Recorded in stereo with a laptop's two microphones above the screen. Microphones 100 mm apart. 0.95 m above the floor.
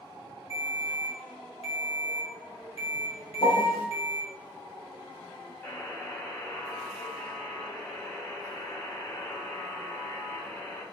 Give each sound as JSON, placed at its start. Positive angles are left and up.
{"t": 0.5, "sound": "a ringtone", "side_deg": 75, "distance_m": 1.4}
{"t": 3.4, "sound": "a piano", "side_deg": 60, "distance_m": 0.7}
{"t": 5.6, "sound": "a buzzer", "side_deg": 15, "distance_m": 1.3}